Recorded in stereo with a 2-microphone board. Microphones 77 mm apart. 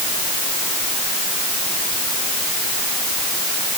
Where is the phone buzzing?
I don't hear a phone buzzing.